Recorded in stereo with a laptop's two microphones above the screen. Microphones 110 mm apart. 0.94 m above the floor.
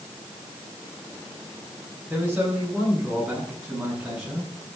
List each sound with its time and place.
2.1 s a man speaking: 10° right (ahead or behind), 10 m; by 4.5 s 5° right (ahead or behind), 8 m